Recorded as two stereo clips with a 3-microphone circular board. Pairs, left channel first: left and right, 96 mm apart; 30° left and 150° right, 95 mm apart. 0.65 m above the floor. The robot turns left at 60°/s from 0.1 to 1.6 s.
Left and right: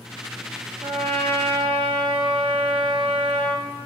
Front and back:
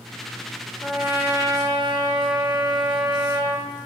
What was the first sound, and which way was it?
A trumpet, 60° right.